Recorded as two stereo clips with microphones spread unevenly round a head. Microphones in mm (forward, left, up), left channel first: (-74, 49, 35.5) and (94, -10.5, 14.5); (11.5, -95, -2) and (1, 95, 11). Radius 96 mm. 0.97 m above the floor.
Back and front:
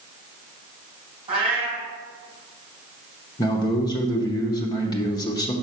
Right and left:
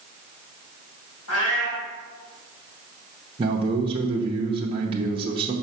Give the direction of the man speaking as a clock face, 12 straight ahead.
8 o'clock.